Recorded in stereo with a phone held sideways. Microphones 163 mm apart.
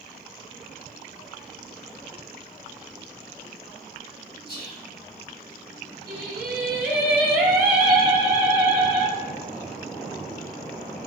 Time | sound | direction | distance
4.5 | whispering | 70° left (ahead or behind) | 1.0 m
6.1 | singing | 75° right (ahead or behind) | 0.7 m